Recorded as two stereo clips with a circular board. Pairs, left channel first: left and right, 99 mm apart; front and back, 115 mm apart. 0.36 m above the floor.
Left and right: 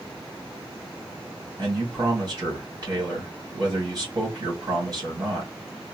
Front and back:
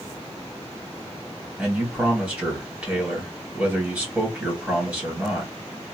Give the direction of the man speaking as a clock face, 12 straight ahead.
4 o'clock.